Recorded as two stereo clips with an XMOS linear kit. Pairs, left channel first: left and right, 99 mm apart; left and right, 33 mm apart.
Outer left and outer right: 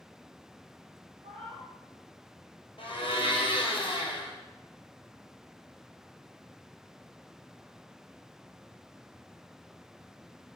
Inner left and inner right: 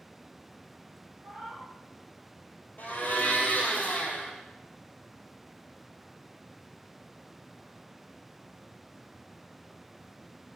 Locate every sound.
1.2 s a cat meowing: 60° right (ahead or behind), 3 m
2.8 s a blender: 55° left (ahead or behind), 1.8 m